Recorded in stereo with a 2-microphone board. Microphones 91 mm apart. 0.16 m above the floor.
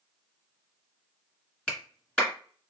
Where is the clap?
10° left (ahead or behind), 1.7 m.